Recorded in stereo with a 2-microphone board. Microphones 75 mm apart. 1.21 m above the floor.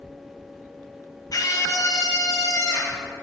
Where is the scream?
50° left (ahead or behind), 1.5 m; by 3.0 s 45° left (ahead or behind), 3.5 m.